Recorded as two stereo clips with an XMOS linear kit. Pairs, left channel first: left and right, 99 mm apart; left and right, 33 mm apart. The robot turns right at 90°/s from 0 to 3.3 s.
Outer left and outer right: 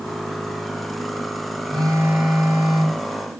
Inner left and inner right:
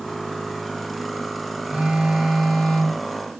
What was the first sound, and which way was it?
A phone buzzing, 50° right.